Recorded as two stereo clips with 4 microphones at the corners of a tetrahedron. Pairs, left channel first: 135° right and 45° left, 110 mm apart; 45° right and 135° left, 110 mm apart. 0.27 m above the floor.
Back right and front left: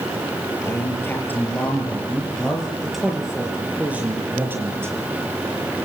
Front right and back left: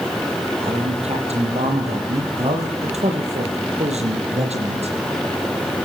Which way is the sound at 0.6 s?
160° left.